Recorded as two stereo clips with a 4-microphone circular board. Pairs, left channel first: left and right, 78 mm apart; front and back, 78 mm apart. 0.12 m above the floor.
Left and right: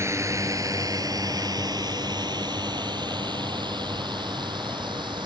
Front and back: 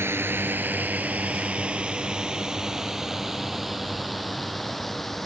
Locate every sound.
0.0 s a drone: 130° right; by 5.3 s 85° right